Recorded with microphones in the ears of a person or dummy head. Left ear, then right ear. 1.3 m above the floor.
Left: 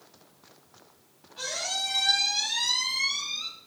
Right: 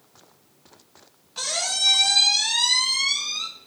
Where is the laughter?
No laughter in this recording.